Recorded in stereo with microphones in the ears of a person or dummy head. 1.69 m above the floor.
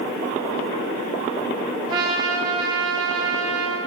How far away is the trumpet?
About 0.6 m.